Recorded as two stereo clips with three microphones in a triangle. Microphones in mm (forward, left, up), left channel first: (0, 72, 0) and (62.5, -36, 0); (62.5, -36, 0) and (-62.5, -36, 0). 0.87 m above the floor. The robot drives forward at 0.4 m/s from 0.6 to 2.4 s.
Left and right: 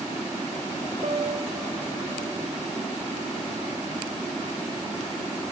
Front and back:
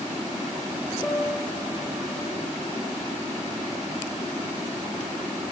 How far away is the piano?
About 3 m.